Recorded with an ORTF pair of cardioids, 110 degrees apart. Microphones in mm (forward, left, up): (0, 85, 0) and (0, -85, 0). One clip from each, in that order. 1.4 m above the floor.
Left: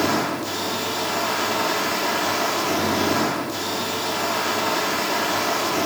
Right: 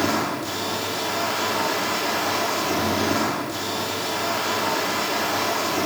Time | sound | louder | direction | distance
0.0 | a machine running | left 1 dB | 5° left | 4 m